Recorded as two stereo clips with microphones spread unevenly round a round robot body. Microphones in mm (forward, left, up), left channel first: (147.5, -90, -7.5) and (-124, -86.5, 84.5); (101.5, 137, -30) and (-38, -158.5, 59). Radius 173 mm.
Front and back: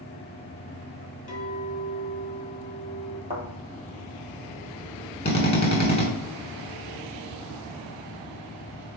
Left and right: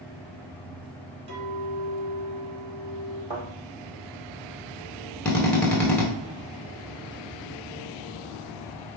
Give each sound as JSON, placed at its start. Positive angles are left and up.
{"t": 1.3, "sound": "a clink", "azimuth_deg": -100, "distance_m": 2.5}
{"t": 3.3, "sound": "a thud", "azimuth_deg": -115, "distance_m": 1.9}
{"t": 5.2, "sound": "a drill", "azimuth_deg": 0, "distance_m": 1.2}